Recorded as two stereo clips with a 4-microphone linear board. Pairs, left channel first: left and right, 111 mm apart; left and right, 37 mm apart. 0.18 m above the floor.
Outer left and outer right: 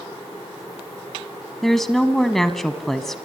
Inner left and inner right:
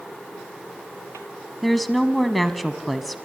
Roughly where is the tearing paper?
I don't hear tearing paper.